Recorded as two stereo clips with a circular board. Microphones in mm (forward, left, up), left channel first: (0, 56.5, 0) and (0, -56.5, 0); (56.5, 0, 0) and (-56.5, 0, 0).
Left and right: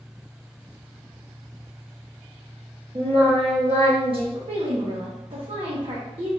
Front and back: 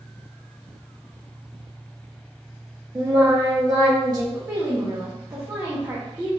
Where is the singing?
125° right, 1.5 m.